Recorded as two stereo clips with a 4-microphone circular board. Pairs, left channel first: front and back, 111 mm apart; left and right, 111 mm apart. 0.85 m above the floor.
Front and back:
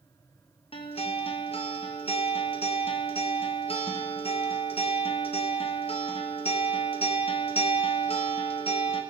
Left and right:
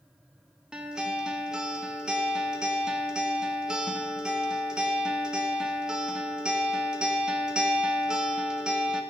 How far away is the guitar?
About 0.7 m.